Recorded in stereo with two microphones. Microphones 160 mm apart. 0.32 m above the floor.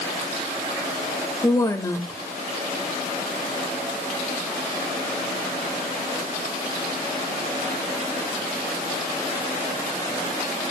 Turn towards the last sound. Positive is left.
turn(degrees=20)  # may be behind; listen again after turning